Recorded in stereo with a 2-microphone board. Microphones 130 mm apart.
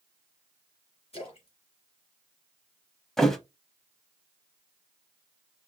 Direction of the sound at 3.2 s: 5° left (ahead or behind).